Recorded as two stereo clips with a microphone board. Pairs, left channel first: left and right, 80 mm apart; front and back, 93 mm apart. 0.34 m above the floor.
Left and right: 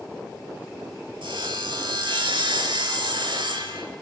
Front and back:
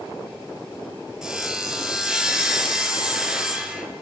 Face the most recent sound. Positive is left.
turn(degrees=-95)